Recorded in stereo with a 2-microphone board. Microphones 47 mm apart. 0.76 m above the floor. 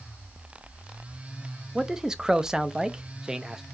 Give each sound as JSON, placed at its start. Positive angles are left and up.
{"t": 1.8, "sound": "a man speaking", "side_deg": -15, "distance_m": 0.5}